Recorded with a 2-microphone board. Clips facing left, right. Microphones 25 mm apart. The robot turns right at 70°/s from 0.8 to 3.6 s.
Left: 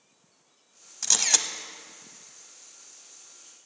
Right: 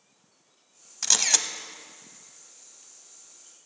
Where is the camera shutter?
25° right, 0.7 m; by 1.5 s 10° left, 0.7 m.